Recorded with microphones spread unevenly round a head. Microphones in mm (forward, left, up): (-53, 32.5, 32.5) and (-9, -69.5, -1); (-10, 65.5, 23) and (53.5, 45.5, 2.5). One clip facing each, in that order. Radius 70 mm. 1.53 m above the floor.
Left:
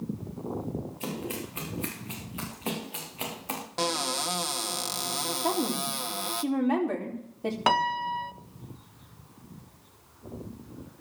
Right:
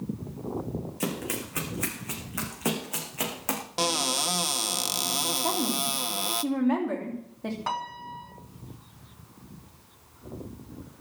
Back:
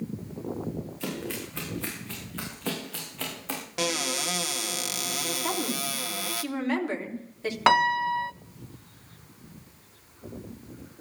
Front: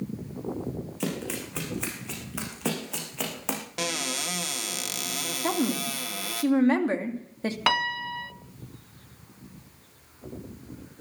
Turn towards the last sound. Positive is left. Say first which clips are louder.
# left 8 dB, back 7 dB
turn(degrees=105)